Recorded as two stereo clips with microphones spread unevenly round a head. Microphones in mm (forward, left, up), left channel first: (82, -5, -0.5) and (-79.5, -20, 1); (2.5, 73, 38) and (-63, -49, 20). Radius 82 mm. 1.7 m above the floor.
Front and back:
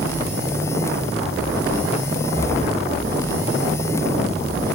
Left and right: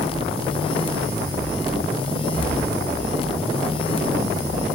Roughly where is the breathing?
Behind right.